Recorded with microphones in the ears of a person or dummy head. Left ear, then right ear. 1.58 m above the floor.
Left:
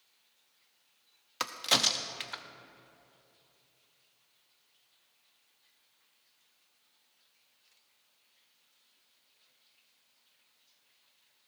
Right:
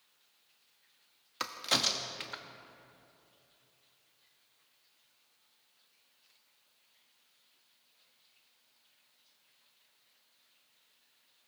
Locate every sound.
1.4 s a crack: 15° left (ahead or behind), 0.5 m